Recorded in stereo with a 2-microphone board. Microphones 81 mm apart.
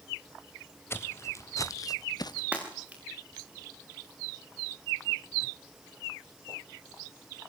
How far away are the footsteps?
About 1.8 m.